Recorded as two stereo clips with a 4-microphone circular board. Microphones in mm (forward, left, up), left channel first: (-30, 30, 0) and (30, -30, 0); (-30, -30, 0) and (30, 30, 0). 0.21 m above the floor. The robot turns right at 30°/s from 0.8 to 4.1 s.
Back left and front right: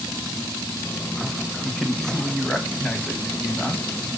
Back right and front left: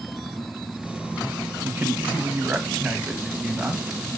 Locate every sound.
1.6 s a man speaking: 50° left, 1.3 m; by 3.8 s 120° left, 1.3 m